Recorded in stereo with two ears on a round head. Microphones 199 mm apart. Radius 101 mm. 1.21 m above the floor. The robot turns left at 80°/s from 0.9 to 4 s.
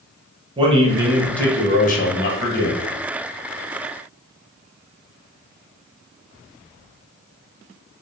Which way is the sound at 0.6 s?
150° right.